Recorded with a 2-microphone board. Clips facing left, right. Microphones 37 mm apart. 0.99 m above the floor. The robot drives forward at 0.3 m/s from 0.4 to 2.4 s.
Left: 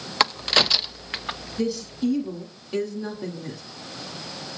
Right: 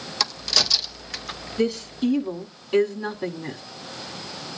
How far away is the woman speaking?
About 1.9 m.